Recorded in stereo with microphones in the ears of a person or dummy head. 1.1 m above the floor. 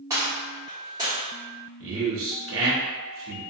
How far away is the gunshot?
About 1.3 m.